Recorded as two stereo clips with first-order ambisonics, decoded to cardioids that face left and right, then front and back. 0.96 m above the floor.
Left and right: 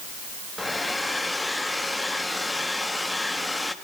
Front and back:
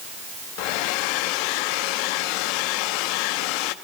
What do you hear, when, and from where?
0.6 s a hair dryer: 5° left, 1.0 m